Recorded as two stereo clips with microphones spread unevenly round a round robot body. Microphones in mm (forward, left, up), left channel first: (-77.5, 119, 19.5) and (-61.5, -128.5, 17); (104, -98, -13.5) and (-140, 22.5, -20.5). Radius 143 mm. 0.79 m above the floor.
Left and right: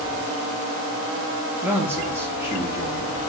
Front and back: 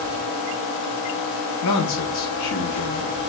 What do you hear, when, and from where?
1.6 s a man speaking: 5° right, 0.8 m